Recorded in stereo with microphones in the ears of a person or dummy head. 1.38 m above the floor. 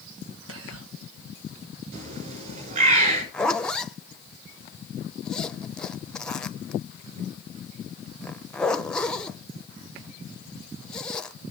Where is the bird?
50° right (ahead or behind), 6.5 m.